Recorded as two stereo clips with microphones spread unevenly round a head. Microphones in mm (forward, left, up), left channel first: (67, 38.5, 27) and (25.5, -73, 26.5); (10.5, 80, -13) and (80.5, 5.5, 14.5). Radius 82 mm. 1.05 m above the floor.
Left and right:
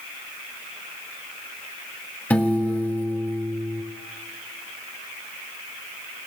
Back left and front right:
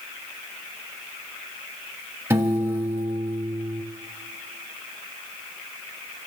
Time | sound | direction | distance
2.3 | a piano | 5° right | 1.3 m